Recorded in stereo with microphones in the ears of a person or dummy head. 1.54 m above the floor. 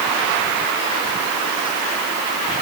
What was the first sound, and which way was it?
Only background noise.